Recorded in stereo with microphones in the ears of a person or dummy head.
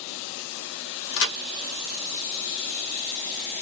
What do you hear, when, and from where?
1.1 s a crack: 65° left (ahead or behind), 1.5 m